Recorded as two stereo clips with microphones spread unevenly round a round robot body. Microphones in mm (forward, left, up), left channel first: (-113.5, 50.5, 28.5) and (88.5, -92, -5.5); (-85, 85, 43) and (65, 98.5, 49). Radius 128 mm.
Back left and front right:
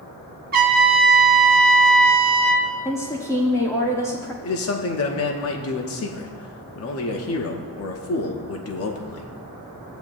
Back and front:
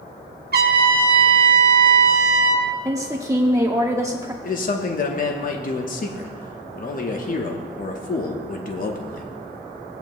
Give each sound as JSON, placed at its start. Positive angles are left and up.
{"t": 0.5, "sound": "a trumpet", "azimuth_deg": 25, "distance_m": 1.3}
{"t": 2.9, "sound": "a woman speaking", "azimuth_deg": 60, "distance_m": 1.2}
{"t": 4.4, "sound": "a man speaking", "azimuth_deg": 175, "distance_m": 1.0}